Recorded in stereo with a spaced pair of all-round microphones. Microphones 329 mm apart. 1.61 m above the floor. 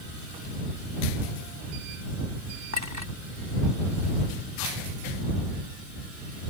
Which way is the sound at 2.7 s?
55° right (ahead or behind).